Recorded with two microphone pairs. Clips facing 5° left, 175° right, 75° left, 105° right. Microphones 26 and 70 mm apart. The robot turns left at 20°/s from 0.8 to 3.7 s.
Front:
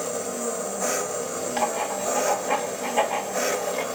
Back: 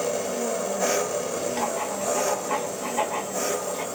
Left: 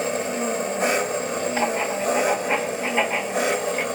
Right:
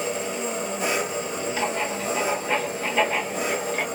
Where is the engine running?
110° left, 1.9 m; by 3.9 s 55° left, 1.9 m.